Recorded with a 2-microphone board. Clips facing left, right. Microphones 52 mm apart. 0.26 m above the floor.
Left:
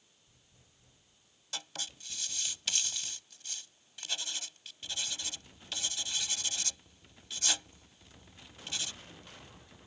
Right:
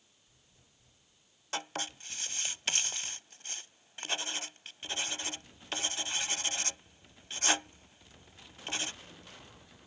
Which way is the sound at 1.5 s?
40° right (ahead or behind).